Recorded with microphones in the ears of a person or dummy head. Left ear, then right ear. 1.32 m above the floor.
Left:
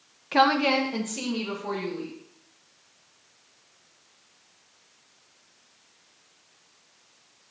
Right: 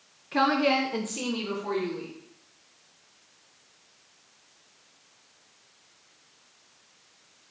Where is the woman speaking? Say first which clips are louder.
Left 3 dB; 30° left (ahead or behind), 0.5 m; by 2.1 s 10° right (ahead or behind), 2.5 m.